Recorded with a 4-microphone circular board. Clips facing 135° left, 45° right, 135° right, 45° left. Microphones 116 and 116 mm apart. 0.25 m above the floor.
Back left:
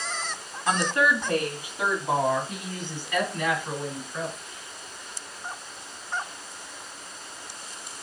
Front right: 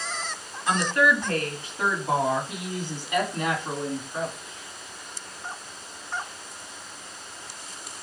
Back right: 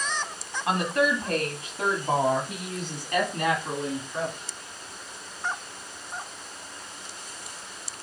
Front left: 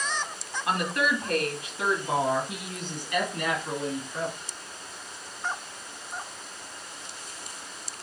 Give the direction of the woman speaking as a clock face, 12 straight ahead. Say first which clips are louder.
Front right 1 dB, back right 3 dB; 6 o'clock.